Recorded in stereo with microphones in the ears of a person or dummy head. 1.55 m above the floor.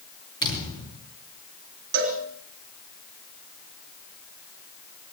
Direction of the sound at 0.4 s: 25° left (ahead or behind).